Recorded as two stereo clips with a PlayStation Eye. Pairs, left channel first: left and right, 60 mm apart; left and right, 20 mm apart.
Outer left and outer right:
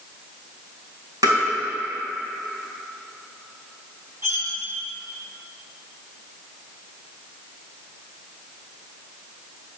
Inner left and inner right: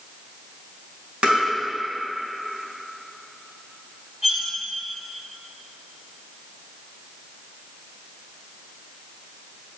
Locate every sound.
1.2 s tapping: 75° right (ahead or behind), 3 m
4.2 s cutlery clinking: 45° right (ahead or behind), 2 m